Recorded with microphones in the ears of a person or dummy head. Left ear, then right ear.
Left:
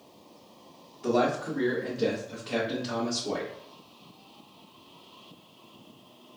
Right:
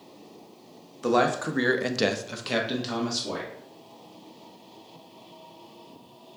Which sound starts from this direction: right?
A man speaking, at 1.0 s.